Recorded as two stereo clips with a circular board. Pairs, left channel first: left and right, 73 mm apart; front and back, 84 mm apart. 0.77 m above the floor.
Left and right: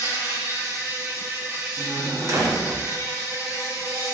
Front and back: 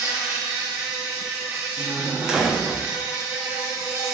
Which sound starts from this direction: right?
A door slam, at 1.8 s.